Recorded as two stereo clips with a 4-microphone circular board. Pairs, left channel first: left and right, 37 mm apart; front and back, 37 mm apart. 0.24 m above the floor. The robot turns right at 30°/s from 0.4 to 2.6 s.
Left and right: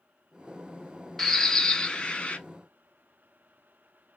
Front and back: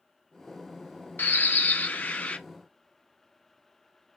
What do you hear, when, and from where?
1.2 s a bird: 5° left, 0.5 m; by 2.4 s 40° left, 0.5 m